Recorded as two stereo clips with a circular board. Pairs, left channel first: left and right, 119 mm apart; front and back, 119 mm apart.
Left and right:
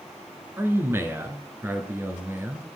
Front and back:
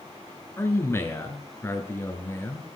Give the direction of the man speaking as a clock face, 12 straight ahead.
1 o'clock.